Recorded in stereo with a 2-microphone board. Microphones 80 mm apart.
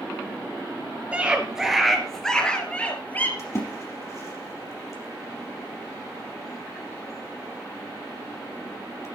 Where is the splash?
35° left (ahead or behind), 3.5 m.